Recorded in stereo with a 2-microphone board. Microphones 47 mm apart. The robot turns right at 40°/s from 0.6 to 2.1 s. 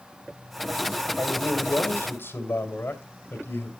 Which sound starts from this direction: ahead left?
A man speaking, at 1.2 s.